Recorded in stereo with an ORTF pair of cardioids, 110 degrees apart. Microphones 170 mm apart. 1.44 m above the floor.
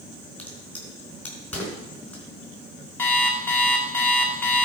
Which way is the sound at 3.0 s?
10° left.